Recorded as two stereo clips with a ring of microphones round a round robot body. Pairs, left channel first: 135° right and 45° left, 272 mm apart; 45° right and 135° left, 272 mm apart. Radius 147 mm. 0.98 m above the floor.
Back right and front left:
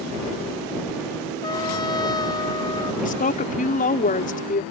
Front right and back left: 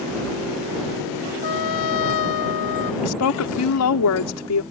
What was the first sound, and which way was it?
A trumpet, 60° right.